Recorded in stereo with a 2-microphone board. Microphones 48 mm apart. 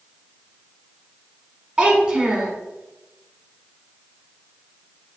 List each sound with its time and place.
1.8 s a child speaking: 20° right (ahead or behind), 1.2 m